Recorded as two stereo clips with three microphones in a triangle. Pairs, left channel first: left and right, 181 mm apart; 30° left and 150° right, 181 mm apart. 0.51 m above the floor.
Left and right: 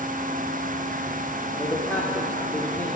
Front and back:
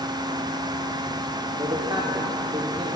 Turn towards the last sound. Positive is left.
turn(degrees=160)